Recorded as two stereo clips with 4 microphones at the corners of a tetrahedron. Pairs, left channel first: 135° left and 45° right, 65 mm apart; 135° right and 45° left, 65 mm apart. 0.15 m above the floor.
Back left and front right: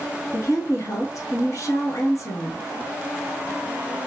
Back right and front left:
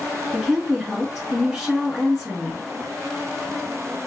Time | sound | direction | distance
0.3 | a woman speaking | 135° left | 1.6 m